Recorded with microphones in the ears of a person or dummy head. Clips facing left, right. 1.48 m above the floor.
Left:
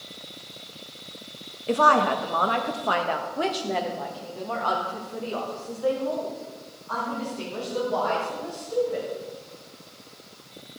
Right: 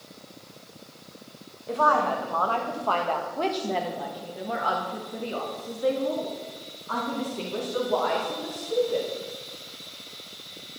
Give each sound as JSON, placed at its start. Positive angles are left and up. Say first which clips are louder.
{"t": 1.7, "sound": "a woman speaking", "louder": "left 3 dB", "side_deg": 45, "distance_m": 1.5}